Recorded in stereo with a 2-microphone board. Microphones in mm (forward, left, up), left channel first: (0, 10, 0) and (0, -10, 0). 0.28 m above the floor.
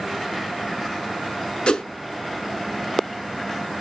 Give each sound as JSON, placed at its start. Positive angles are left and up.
{"t": 1.7, "sound": "a whoosh", "side_deg": 70, "distance_m": 0.8}